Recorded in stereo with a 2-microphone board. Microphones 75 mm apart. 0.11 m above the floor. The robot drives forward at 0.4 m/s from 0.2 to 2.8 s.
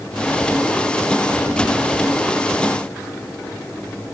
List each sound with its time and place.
Only background noise.